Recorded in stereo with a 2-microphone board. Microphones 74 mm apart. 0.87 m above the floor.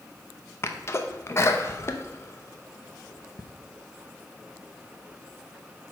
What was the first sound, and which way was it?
A sneeze, 35° left (ahead or behind).